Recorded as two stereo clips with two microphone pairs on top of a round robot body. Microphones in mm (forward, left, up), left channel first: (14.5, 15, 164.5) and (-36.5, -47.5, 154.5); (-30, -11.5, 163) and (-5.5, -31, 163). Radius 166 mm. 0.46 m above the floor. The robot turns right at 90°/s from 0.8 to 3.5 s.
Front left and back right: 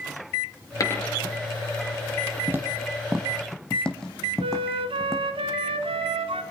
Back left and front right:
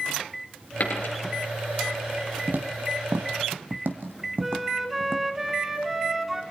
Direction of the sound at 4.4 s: 125° right.